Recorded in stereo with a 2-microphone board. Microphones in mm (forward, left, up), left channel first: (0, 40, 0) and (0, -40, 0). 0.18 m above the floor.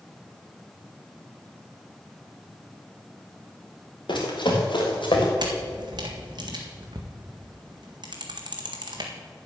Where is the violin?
No violin in this recording.